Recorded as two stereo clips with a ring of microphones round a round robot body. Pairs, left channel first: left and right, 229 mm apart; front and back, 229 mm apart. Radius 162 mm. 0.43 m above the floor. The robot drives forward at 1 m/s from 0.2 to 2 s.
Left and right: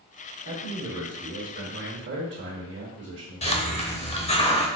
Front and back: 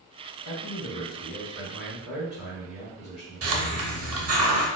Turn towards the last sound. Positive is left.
turn(degrees=155)